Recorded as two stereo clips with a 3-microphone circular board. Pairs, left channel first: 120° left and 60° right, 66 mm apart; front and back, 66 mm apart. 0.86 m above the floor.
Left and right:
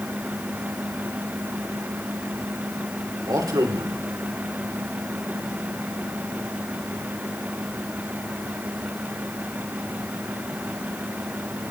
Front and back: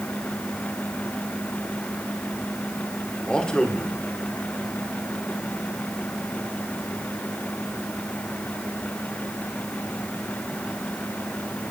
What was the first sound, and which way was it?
A man speaking, 75° right.